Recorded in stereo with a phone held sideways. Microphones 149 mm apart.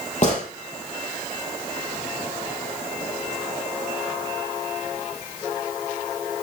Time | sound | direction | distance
0.2 | a gunshot | 50° left (ahead or behind) | 5 m